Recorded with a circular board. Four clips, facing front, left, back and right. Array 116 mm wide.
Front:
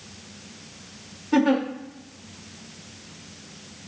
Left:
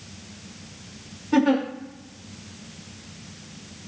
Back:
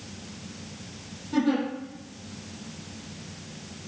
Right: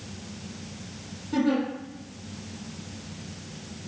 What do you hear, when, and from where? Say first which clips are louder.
1.3 s a giggle: left 5 dB, front 4 dB; 45° left, 3 m